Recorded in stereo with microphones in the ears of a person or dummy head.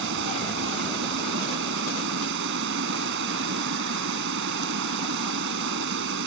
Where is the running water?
75° right (ahead or behind).